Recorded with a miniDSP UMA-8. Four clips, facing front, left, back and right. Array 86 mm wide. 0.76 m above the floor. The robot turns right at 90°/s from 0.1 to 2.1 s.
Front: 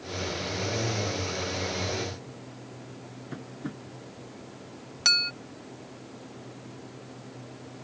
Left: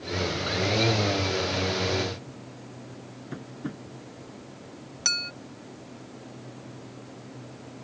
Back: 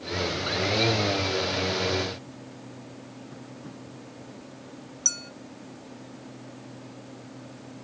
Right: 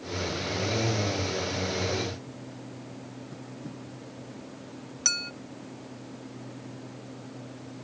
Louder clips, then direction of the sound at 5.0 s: Left 2 dB, front 16 dB; 10° left.